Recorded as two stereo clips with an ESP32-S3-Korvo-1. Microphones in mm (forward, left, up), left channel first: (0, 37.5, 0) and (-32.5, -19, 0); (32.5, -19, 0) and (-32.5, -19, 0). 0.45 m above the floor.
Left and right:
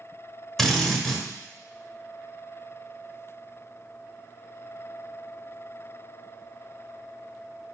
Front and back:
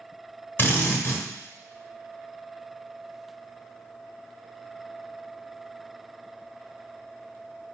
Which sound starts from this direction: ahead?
A drill, at 0.6 s.